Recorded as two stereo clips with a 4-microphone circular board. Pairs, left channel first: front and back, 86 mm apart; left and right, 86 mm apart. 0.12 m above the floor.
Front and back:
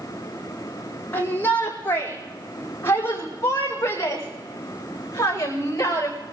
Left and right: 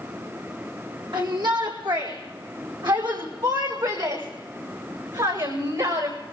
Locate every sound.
1.1 s a shout: 65° right, 5 m; by 6.2 s 55° right, 8 m